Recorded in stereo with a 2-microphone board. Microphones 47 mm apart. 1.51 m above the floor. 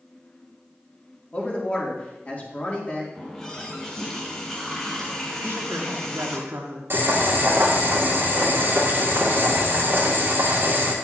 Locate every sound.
1.3 s a man speaking: 35° left (ahead or behind), 2.5 m
3.1 s a running tap: 10° left (ahead or behind), 3 m
5.4 s a woman speaking: 80° right, 1.6 m
6.9 s boiling: 50° right (ahead or behind), 1.9 m